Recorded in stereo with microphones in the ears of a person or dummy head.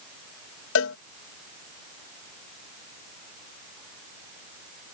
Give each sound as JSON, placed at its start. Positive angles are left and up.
{"t": 0.8, "sound": "a cowbell", "side_deg": 85}